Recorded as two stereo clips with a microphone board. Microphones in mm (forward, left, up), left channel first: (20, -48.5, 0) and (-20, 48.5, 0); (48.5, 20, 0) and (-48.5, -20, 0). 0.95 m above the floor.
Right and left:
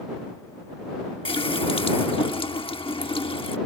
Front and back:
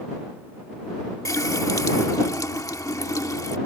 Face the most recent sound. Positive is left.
turn(degrees=-35)